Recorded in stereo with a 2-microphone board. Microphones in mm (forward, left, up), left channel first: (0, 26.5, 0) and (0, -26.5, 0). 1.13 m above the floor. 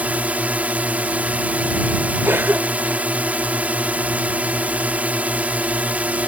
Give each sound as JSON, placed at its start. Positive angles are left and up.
{"t": 0.0, "sound": "a drone", "side_deg": -25}
{"t": 2.2, "sound": "a cough", "side_deg": -45}